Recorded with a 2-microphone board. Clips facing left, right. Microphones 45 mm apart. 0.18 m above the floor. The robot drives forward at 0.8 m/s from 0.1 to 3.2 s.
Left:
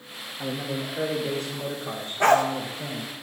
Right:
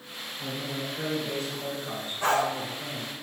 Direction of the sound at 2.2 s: 70° left (ahead or behind).